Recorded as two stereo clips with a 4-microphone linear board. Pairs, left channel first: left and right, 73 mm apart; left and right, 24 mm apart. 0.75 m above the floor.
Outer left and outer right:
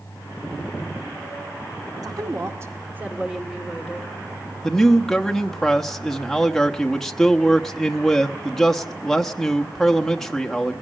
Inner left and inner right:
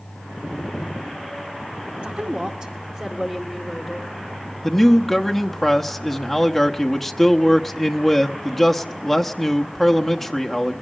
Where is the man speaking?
5° left (ahead or behind), 1.0 m.